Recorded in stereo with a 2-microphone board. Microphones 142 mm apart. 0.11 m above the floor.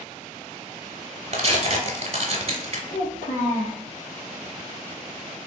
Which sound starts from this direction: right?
Tearing paper, at 1.3 s.